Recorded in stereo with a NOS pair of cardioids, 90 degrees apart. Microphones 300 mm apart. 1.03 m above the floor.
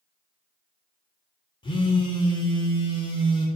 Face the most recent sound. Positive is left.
turn(degrees=15)